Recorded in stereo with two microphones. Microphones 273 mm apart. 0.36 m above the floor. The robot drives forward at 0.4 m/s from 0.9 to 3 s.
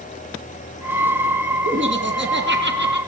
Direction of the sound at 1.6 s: 45° right (ahead or behind).